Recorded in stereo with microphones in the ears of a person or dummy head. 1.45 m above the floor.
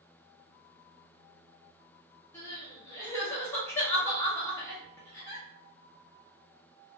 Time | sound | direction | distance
2.3 | crying | 5° left (ahead or behind) | 0.8 m